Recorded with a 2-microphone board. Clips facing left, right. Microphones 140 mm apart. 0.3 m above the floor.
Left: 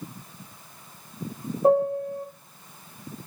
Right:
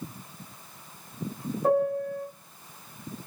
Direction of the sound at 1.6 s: 25° left (ahead or behind).